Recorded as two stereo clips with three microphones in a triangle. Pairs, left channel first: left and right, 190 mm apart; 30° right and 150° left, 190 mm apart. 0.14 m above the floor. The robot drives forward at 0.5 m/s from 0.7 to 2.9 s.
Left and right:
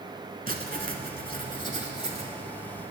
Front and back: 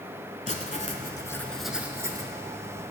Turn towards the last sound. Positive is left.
turn(degrees=-155)